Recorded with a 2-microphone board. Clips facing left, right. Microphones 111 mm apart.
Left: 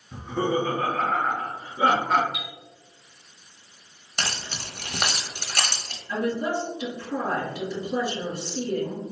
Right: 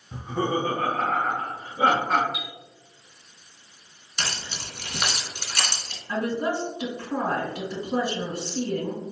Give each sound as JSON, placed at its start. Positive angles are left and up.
{"t": 0.1, "sound": "laughter", "side_deg": -20, "distance_m": 1.5}
{"t": 2.3, "sound": "a chime", "side_deg": 45, "distance_m": 0.8}
{"t": 4.2, "sound": "keys jangling", "side_deg": 45, "distance_m": 1.0}
{"t": 6.1, "sound": "a woman speaking", "side_deg": -40, "distance_m": 1.9}